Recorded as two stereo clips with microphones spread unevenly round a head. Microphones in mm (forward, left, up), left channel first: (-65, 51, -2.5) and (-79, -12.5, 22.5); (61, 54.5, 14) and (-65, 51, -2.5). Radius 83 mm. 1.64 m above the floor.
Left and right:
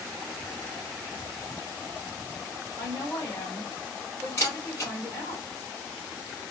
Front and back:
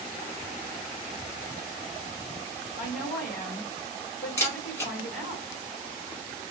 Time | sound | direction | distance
2.8 | a woman speaking | 25° right | 1.3 m
4.4 | a camera shutter | 10° left | 0.8 m